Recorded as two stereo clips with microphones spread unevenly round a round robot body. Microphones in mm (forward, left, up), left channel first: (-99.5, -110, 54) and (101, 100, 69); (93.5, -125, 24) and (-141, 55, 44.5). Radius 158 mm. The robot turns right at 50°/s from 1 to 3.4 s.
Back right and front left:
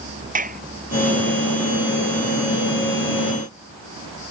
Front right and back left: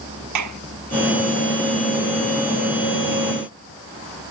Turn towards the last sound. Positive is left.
turn(degrees=-130)